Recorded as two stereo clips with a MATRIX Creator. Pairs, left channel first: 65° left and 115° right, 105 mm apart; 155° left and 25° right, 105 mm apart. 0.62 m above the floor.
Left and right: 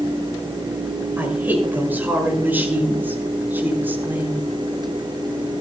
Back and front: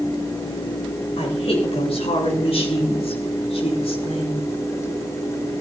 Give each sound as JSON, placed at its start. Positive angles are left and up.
{"t": 1.2, "sound": "a woman speaking", "azimuth_deg": 175, "distance_m": 6.5}